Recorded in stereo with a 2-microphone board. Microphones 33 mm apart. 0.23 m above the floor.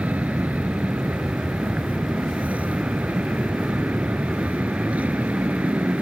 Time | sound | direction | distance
0.0 | an aircraft | 50° right (ahead or behind) | ?